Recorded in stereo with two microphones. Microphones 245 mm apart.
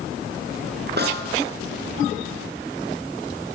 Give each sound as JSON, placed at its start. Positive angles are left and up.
{"t": 1.0, "sound": "a snare drum", "side_deg": -45, "distance_m": 7.0}